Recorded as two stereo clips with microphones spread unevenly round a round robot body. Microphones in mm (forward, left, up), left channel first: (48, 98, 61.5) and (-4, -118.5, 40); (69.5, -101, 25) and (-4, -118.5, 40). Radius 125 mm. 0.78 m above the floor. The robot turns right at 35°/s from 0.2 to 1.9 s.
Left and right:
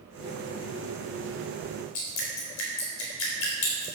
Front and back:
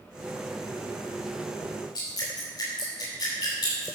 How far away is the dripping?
About 4 m.